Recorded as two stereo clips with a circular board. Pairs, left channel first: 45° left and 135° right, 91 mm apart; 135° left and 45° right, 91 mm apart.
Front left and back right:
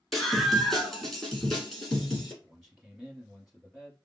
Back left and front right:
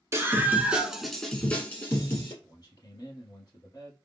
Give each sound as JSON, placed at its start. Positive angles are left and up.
{"t": 0.1, "sound": "a scream", "azimuth_deg": -45, "distance_m": 1.4}
{"t": 2.4, "sound": "a man speaking", "azimuth_deg": 140, "distance_m": 2.0}